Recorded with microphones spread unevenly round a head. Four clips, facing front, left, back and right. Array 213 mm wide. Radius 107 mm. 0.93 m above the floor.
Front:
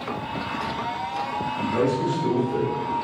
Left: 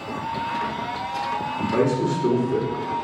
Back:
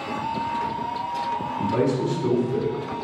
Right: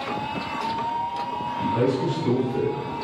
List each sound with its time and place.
1.6 s a man speaking: 115° left, 3.5 m